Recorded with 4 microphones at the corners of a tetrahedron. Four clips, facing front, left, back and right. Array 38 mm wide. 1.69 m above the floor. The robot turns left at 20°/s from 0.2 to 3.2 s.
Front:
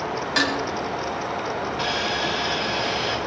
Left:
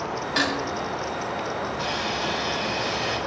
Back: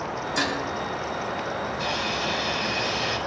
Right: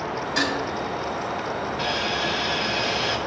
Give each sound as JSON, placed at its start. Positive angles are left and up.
{"t": 0.4, "sound": "dishes clattering", "azimuth_deg": 25, "distance_m": 5.5}
{"t": 1.8, "sound": "sawing", "azimuth_deg": -30, "distance_m": 7.5}